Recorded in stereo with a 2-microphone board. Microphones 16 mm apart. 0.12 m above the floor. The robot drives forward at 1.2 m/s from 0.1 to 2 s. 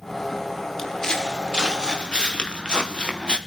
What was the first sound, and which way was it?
Footsteps, 20° left (ahead or behind).